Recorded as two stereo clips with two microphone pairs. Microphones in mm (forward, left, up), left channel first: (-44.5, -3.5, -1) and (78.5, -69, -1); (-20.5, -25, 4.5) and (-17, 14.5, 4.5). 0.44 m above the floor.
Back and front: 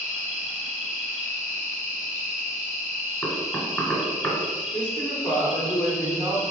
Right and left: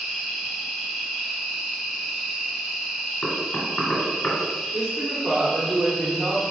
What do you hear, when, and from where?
0.0 s an insect: 5° left, 1.0 m
3.2 s knocking: 125° right, 1.4 m
4.7 s a woman speaking: 70° left, 0.8 m